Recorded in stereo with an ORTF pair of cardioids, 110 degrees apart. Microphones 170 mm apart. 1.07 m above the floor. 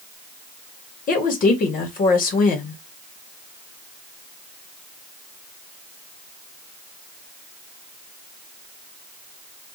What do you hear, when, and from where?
1.1 s a woman speaking: 55° left, 2 m